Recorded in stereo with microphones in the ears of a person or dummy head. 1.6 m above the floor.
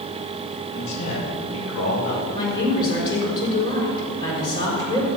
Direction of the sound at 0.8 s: 75° left (ahead or behind).